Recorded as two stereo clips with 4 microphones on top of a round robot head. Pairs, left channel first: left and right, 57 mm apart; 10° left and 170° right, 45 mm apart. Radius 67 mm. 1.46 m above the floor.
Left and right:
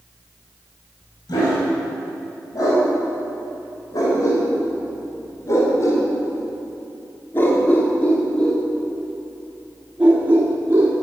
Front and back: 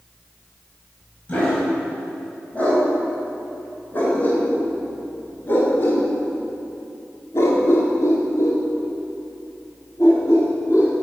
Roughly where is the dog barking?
Left.